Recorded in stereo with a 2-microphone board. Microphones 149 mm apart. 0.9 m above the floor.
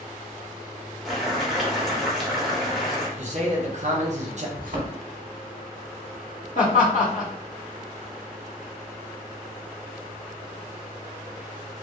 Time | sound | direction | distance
1.1 | boiling | centre (ahead or behind) | 0.8 m
3.2 | a man speaking | 55° right (ahead or behind) | 0.7 m
4.6 | a thud | 60° right (ahead or behind) | 0.8 m
6.5 | laughter | 65° left (ahead or behind) | 1.4 m